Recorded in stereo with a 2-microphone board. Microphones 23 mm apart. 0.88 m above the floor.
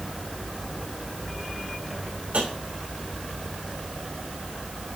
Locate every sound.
2.3 s tapping: 80° right, 5.5 m